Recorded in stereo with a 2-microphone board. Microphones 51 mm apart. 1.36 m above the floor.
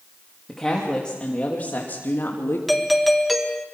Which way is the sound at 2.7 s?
Centre (ahead or behind).